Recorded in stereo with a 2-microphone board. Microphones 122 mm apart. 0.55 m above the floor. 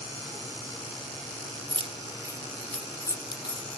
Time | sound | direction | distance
1.7 | keys jangling | 45° right (ahead or behind) | 0.7 m